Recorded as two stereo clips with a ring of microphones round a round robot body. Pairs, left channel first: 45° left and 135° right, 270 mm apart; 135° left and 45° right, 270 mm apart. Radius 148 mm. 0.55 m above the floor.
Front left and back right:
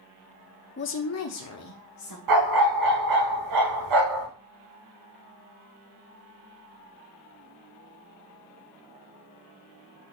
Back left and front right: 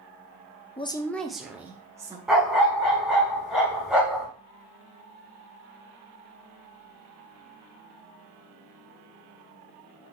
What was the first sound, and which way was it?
A woman speaking, 75° left.